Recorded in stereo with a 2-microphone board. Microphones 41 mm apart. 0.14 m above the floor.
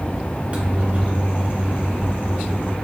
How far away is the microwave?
About 1.0 m.